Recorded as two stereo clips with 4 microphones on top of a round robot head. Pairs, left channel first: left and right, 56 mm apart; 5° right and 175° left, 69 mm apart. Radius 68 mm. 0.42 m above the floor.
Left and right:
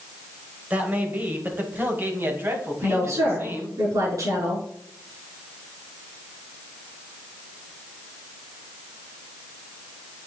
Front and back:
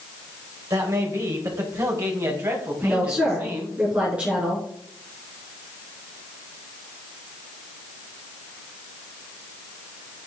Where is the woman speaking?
110° right, 5.5 m.